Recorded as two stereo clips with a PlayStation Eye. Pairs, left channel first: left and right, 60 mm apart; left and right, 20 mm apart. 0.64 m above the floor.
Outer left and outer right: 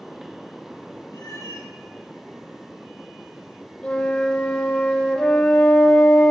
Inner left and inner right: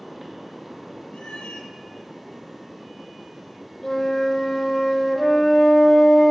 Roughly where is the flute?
Left.